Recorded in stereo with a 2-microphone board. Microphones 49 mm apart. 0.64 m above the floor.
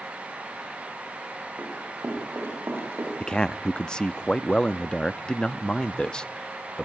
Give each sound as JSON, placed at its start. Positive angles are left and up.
{"t": 1.6, "sound": "running footsteps", "side_deg": -55, "distance_m": 10.0}
{"t": 3.2, "sound": "a man speaking", "side_deg": 15, "distance_m": 0.5}